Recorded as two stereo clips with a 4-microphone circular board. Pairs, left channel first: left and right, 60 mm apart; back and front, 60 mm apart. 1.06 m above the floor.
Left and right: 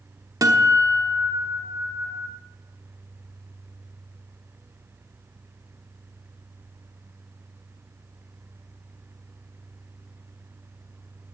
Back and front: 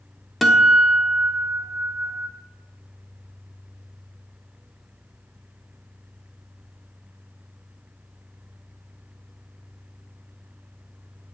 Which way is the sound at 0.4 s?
90° right.